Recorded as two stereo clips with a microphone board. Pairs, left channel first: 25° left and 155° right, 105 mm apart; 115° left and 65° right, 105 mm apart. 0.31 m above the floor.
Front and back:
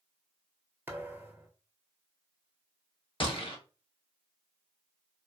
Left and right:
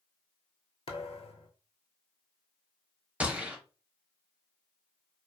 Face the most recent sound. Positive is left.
turn(degrees=10)